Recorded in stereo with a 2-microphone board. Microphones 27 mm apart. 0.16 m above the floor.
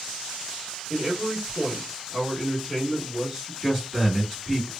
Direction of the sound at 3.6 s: 20° right (ahead or behind).